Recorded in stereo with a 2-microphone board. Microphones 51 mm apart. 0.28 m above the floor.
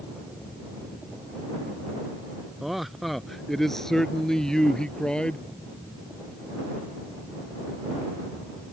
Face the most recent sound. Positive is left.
turn(degrees=20)  # may be behind; listen again after turning